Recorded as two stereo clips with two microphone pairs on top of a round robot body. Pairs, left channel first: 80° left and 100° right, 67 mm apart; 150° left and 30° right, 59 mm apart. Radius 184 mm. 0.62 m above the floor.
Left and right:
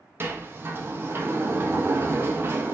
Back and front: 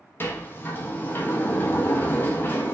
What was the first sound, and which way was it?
A sliding door, 155° right.